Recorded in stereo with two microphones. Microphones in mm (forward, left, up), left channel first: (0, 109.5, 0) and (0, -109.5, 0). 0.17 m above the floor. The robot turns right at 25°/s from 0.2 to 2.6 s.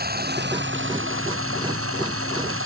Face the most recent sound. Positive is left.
turn(degrees=-75)